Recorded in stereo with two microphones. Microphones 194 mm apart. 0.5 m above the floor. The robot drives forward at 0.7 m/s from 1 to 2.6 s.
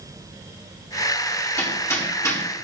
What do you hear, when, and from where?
1.6 s hammering: 15° left (ahead or behind), 5 m